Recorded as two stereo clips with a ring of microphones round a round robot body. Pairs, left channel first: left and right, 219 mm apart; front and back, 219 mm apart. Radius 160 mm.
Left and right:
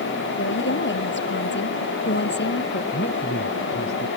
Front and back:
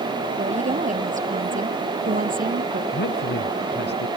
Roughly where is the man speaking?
Ahead left.